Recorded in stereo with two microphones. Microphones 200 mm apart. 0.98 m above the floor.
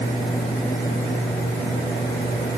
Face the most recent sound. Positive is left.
No sound to turn to.